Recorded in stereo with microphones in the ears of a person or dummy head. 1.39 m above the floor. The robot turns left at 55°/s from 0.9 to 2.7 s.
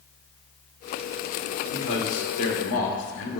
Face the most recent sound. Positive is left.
turn(degrees=70)